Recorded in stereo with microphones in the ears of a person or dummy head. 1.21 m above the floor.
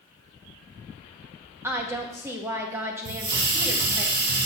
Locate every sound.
1.6 s a woman speaking: 15° right (ahead or behind), 1.6 m
3.0 s a hiss: 60° right (ahead or behind), 1.7 m